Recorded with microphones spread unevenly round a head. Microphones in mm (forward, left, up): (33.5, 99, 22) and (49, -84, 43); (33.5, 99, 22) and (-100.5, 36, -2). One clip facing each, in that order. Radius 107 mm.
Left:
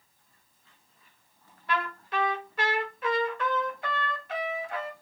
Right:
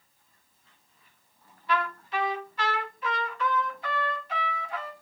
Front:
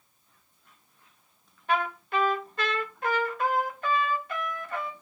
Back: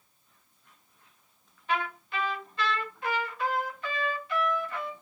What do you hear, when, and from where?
1.7 s a trumpet: 55° left, 0.9 m